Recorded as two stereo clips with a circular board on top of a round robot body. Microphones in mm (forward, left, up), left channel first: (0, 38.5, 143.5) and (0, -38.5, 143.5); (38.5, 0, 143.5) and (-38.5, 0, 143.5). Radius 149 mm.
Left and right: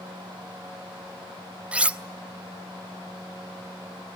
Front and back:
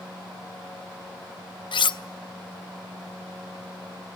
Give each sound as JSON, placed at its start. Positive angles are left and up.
{"t": 1.7, "sound": "cutlery clinking", "azimuth_deg": -15, "distance_m": 0.6}